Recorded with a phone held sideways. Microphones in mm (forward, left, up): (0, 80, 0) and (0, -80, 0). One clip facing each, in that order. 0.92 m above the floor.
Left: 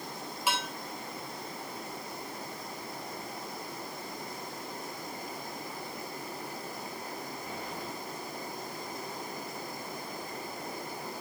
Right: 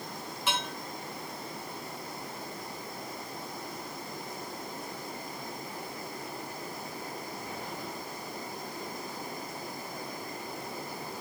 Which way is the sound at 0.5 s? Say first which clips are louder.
Left 1 dB; 10° left (ahead or behind).